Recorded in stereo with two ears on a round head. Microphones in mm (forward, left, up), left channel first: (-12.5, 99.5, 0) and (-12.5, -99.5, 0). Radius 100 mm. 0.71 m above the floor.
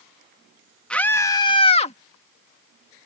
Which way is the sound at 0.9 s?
5° left (ahead or behind).